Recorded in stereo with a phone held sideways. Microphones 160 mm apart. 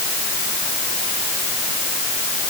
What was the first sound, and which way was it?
Only background noise.